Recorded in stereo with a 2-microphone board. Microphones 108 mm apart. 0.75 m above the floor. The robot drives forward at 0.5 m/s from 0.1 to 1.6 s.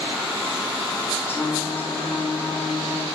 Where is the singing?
25° left (ahead or behind), 1.6 m; by 3.1 s 20° left (ahead or behind), 1.8 m.